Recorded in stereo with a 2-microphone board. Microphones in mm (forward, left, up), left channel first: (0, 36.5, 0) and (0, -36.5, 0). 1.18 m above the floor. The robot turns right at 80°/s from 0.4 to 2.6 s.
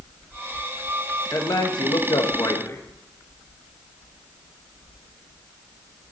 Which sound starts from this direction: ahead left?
A man speaking, at 1.3 s.